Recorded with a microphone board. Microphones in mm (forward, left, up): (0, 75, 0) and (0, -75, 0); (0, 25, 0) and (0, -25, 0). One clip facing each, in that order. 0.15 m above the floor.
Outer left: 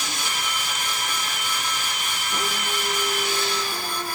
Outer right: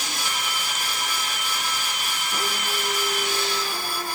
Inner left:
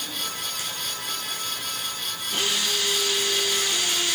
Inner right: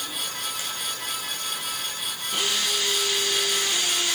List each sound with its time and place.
Only background noise.